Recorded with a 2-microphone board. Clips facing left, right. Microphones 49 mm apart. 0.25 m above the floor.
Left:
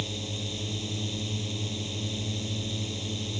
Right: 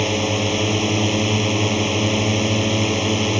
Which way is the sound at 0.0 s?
75° right (ahead or behind).